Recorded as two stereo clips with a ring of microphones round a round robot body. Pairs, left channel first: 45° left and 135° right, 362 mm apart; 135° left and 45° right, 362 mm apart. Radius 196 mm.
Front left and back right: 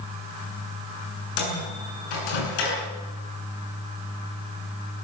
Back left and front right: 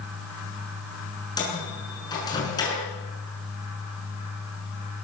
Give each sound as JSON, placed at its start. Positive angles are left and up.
{"t": 1.4, "sound": "a microwave", "azimuth_deg": 55, "distance_m": 7.5}